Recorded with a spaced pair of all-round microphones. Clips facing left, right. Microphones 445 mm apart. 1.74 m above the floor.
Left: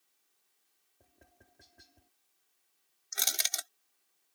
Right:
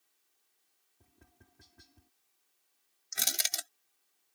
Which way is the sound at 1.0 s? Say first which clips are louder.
Even; 20° right (ahead or behind).